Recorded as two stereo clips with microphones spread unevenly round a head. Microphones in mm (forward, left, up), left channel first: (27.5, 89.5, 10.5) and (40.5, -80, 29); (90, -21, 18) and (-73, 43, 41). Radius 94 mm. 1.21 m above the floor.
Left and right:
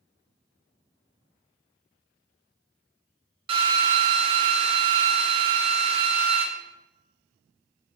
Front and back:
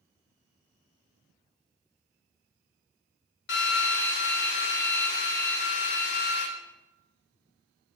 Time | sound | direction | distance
3.5 | a drill | 25° right | 2.0 m